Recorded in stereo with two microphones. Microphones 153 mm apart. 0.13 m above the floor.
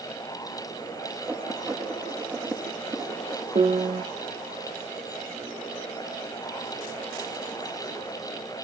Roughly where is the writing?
Centre.